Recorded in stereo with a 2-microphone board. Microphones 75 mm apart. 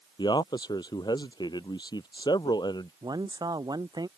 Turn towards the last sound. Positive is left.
turn(degrees=-60)  # may be behind; listen again after turning